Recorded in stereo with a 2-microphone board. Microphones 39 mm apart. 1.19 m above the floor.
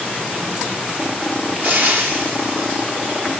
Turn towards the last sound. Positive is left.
turn(degrees=-55)  # may be behind; listen again after turning